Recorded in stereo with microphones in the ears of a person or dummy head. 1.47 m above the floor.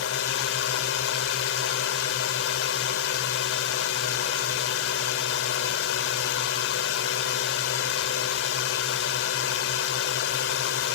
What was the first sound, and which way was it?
A drone, 80° left.